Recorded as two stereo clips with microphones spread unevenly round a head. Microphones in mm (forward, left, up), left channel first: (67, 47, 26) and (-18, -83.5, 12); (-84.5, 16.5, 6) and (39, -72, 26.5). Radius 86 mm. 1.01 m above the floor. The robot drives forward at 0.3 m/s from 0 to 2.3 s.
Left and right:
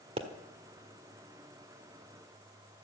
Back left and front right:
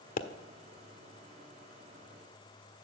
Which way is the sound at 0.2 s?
175° left.